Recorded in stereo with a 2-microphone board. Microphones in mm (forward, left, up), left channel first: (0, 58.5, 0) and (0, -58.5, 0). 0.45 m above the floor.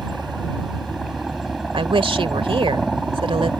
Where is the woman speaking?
50° right (ahead or behind).